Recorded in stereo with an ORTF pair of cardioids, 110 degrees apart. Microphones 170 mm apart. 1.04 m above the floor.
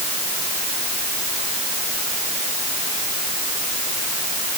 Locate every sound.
Only background noise.